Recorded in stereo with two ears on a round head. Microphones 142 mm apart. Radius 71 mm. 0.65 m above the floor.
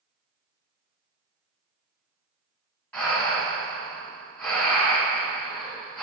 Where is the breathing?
10° left (ahead or behind), 1.2 m.